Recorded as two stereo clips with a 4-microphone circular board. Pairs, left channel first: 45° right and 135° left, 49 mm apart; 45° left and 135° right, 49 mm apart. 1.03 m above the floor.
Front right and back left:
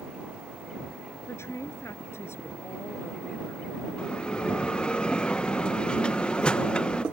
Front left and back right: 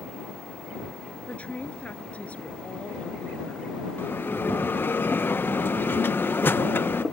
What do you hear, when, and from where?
1.3 s a woman speaking: 20° right
4.0 s a bell: 15° left